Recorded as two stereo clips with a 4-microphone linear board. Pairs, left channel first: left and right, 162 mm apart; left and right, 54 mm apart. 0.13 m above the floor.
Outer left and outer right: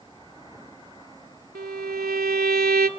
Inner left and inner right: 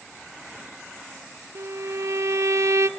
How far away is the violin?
About 0.6 m.